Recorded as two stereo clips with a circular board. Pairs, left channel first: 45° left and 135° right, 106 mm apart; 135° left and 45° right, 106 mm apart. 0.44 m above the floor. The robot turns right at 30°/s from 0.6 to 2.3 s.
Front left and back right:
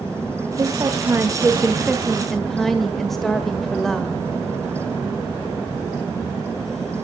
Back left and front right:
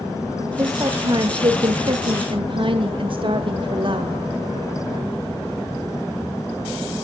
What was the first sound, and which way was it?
A woman speaking, 90° right.